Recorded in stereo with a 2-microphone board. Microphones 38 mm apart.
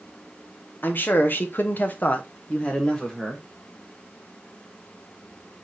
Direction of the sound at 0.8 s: 55° left (ahead or behind).